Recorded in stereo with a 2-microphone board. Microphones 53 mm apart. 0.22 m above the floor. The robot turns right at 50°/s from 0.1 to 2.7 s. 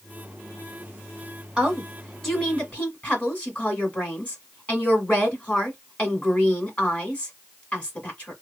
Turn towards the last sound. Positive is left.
turn(degrees=35)